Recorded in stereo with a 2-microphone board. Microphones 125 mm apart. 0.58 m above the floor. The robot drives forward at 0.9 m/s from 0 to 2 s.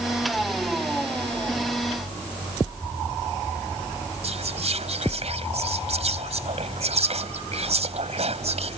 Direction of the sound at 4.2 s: 60° right (ahead or behind).